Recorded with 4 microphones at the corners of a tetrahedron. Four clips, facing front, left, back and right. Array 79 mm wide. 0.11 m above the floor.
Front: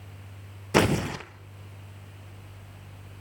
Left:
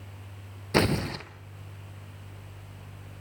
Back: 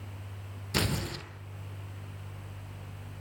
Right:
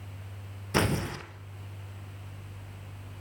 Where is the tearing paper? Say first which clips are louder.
Left 3 dB, front 10 dB; 25° left, 2 m.